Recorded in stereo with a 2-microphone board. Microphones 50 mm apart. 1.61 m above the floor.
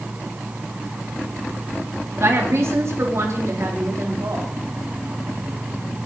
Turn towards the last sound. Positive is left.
turn(degrees=-70)  # may be behind; listen again after turning